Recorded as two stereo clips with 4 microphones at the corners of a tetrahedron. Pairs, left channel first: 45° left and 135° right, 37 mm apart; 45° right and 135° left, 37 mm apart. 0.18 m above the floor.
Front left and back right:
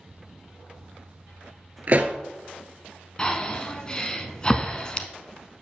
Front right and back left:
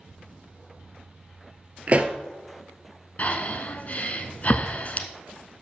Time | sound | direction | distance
1.9 | a pop | 175° right | 0.9 m
3.2 | breathing | 15° right | 0.8 m